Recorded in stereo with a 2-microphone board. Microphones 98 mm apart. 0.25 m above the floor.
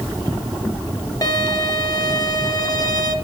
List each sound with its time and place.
1.2 s a violin: 40° left (ahead or behind), 1.5 m